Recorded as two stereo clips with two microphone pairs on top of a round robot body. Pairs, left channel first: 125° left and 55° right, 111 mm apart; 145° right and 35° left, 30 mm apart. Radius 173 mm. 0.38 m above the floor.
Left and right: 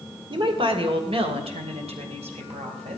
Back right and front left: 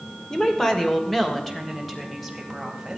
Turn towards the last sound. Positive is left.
turn(degrees=-55)